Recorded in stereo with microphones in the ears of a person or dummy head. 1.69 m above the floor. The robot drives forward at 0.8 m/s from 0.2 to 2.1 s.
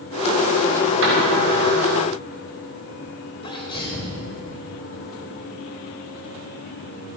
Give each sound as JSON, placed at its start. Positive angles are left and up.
{"t": 1.0, "sound": "a door slam", "side_deg": -70, "distance_m": 4.5}
{"t": 3.4, "sound": "a sneeze", "side_deg": 25, "distance_m": 2.0}